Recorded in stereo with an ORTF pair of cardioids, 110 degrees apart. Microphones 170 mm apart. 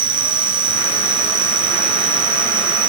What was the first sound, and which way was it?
An insect, 55° right.